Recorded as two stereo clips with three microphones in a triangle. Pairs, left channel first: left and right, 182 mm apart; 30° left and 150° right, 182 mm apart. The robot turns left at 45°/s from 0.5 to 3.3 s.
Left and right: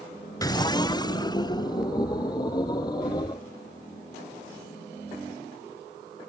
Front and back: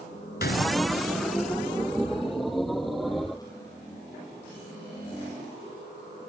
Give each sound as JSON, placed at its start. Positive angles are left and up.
{"t": 0.4, "sound": "a gunshot", "azimuth_deg": 25}